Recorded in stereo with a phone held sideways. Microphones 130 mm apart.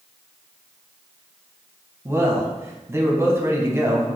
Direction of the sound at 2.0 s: 20° right (ahead or behind).